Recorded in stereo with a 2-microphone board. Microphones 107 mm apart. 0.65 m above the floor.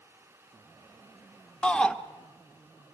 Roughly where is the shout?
Centre.